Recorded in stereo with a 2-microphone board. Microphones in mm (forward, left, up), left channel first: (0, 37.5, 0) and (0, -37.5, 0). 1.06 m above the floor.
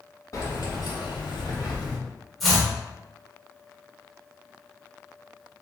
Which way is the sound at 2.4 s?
Centre (ahead or behind).